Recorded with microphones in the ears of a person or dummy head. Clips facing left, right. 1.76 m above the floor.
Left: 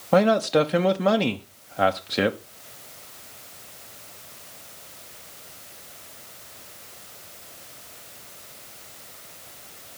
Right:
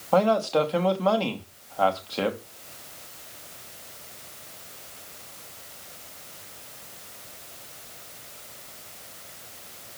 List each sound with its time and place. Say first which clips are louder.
0.1 s a man speaking: left 2 dB; 25° left (ahead or behind), 1.2 m